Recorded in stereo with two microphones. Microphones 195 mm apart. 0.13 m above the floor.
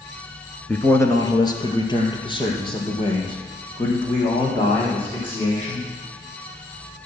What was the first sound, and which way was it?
A man speaking, 5° left (ahead or behind).